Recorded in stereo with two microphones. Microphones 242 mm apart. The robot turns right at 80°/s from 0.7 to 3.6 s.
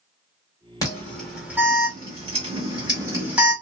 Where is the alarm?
15° left (ahead or behind), 1.9 m; by 3.5 s centre (ahead or behind), 1.9 m.